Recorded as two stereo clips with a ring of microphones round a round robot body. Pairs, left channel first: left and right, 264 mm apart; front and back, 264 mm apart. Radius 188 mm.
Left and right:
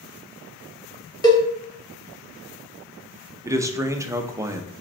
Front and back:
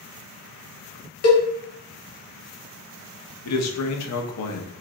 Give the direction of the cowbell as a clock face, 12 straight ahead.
11 o'clock.